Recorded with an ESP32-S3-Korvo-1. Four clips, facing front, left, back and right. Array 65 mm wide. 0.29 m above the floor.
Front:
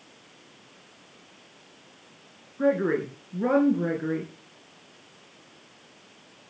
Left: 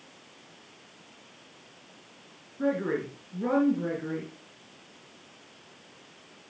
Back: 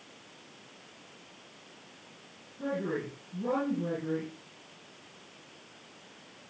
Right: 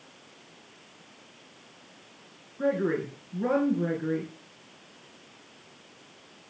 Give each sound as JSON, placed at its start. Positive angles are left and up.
{"t": 2.6, "sound": "a woman speaking", "azimuth_deg": -5, "distance_m": 4.0}